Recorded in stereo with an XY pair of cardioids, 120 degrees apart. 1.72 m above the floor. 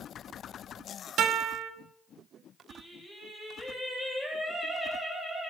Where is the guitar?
60° right, 1.7 m.